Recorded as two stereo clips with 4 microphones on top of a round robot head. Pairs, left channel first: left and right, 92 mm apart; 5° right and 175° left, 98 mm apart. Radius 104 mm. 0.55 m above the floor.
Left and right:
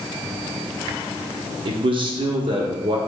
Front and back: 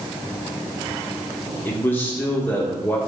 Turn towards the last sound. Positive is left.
turn(degrees=-75)